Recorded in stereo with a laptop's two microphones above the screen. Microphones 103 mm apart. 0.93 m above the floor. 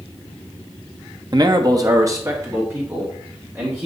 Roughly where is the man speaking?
Right.